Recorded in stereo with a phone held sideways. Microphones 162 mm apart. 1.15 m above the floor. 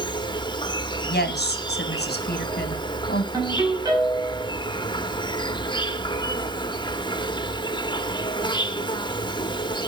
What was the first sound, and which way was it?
An insect, 25° left (ahead or behind).